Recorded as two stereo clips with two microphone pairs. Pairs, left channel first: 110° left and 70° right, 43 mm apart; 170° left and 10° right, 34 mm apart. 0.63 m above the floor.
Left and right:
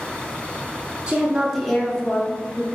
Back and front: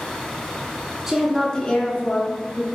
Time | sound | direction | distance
1.1 | a woman speaking | 45° right | 0.5 m